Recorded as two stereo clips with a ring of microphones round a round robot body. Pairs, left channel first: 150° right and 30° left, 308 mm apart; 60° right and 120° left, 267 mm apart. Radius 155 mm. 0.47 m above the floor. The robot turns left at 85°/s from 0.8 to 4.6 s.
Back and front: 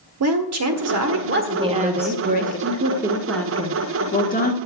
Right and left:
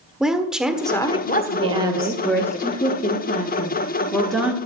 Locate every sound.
0.2 s a woman speaking: 35° left, 1.5 m; by 2.6 s 120° right, 1.5 m
1.6 s a woman speaking: 85° left, 1.2 m; by 4.6 s 170° right, 1.2 m